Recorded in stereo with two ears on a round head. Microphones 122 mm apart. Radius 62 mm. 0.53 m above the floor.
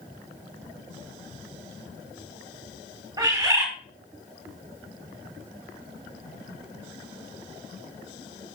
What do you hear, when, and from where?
3.2 s a bird: 30° right (ahead or behind), 2.5 m